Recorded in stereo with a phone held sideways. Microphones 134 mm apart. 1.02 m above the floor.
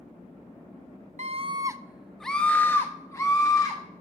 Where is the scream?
55° right (ahead or behind), 0.5 m; by 3.8 s 30° left (ahead or behind), 1.6 m.